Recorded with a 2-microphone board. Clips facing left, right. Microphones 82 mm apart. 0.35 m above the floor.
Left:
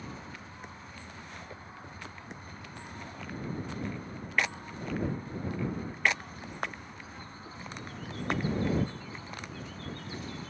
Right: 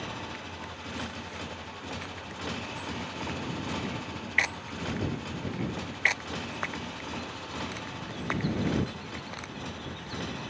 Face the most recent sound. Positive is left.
turn(degrees=-65)  # may be behind; listen again after turning